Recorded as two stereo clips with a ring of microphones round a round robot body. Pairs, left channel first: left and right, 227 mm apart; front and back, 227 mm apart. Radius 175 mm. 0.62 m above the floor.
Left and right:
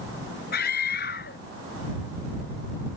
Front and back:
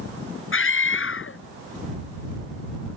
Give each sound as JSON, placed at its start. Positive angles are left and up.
{"t": 0.5, "sound": "a scream", "azimuth_deg": 30}